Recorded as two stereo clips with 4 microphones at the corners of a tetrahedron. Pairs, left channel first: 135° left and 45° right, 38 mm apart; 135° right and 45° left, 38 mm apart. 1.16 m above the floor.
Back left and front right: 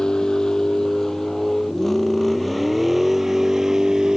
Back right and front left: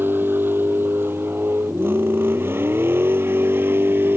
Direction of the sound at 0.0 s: 65° left.